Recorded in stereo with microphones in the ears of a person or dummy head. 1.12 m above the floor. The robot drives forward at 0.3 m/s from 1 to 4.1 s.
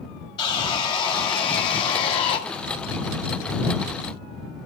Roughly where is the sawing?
Left.